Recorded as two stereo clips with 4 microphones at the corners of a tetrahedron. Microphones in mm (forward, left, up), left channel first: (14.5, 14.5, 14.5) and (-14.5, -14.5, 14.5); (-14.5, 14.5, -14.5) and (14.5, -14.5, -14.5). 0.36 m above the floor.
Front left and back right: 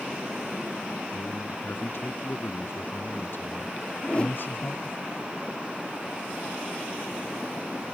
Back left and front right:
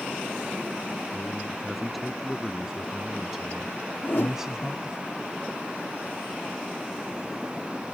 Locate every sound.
1.1 s a man speaking: 45° left; by 5.0 s 25° left
4.0 s a whoosh: 105° left